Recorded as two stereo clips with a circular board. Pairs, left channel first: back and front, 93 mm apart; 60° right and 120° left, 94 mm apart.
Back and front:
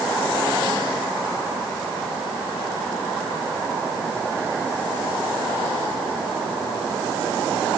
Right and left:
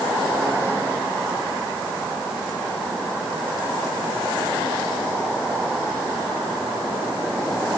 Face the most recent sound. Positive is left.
No sound to turn to.